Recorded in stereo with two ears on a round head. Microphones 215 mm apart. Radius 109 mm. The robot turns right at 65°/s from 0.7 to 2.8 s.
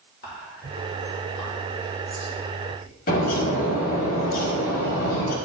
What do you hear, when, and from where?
0.2 s whispering: 45° left (ahead or behind), 2.5 m; by 2.9 s 5° right (ahead or behind), 2.5 m
3.1 s a bird: 40° left (ahead or behind), 1.4 m